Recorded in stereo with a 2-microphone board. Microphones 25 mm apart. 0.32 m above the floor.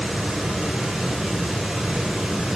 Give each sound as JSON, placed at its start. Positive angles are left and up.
{"t": 0.0, "sound": "running water", "side_deg": -25, "distance_m": 4.5}